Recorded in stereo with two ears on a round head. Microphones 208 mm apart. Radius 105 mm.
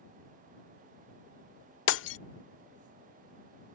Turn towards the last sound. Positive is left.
turn(degrees=55)  # may be behind; listen again after turning